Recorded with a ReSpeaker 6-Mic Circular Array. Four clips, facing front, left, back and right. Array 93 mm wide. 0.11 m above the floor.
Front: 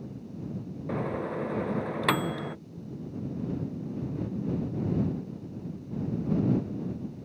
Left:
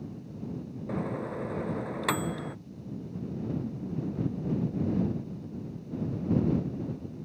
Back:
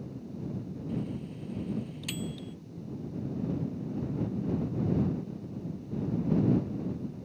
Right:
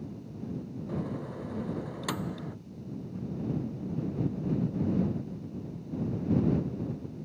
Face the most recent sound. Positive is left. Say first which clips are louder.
# left 4 dB, front 7 dB
turn(degrees=20)